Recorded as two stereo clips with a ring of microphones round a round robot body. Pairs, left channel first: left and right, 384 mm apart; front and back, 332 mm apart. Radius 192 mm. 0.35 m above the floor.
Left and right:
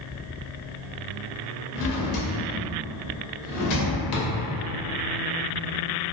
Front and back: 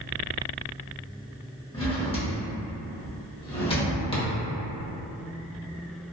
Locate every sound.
1.7 s a drawer: 70° left, 0.7 m